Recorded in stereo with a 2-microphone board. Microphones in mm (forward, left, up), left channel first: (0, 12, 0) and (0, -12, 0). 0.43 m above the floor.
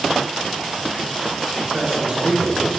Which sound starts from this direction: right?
A man speaking, at 1.7 s.